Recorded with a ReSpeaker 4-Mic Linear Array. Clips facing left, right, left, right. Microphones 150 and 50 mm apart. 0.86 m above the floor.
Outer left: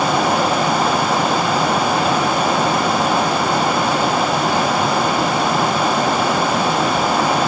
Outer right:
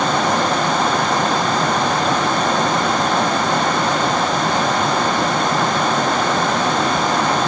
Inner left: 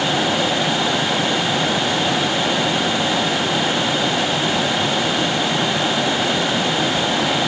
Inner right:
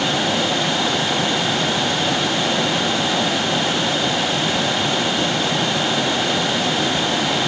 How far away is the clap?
I don't hear a clap.